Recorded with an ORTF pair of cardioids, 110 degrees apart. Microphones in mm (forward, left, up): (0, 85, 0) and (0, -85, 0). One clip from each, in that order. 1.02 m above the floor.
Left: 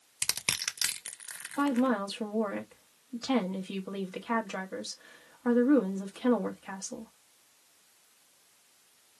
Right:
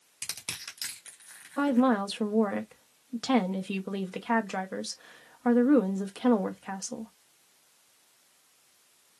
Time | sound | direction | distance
0.2 | crushing | 35° left | 0.7 m
1.6 | a woman speaking | 25° right | 1.0 m